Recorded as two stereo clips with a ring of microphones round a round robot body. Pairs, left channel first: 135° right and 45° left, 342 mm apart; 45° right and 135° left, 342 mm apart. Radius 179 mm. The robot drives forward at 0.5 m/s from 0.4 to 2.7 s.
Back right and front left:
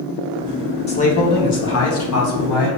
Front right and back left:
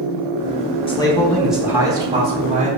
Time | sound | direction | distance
0.9 | a man speaking | 95° right | 0.8 m